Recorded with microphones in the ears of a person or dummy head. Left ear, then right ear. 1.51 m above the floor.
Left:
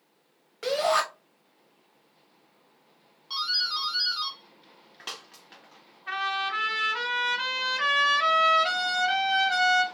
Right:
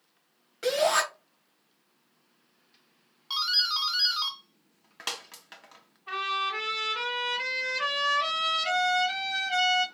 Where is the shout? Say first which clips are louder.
Even; 15° left (ahead or behind), 1.1 m.